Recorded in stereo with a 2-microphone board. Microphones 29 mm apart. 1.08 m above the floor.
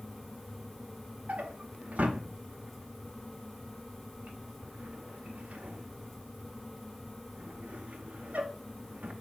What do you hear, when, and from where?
1.3 s a drawer: 65° right (ahead or behind), 0.9 m